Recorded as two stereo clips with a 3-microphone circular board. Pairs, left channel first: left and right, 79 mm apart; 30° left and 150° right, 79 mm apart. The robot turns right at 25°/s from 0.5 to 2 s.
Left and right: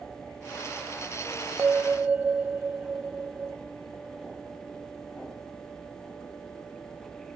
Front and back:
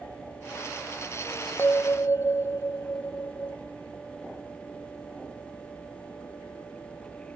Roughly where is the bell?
Ahead right.